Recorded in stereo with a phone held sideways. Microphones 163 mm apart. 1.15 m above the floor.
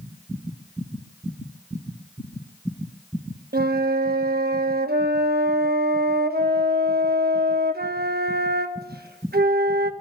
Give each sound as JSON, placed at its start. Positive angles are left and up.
{"t": 3.5, "sound": "a flute", "side_deg": -75, "distance_m": 1.2}